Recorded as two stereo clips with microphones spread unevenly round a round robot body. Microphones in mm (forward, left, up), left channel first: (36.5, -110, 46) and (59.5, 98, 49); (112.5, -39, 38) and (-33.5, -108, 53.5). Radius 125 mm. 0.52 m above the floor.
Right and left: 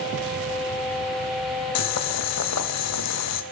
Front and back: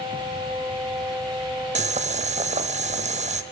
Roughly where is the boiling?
Right.